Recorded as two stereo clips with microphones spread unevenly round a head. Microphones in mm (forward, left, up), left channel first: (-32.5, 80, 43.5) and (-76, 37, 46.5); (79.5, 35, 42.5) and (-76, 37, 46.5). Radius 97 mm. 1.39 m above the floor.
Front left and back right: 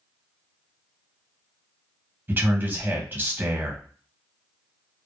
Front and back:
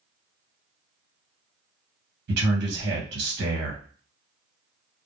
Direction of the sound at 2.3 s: 165° left.